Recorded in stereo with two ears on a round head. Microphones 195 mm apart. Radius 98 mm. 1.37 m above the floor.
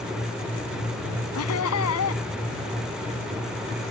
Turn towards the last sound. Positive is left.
turn(degrees=80)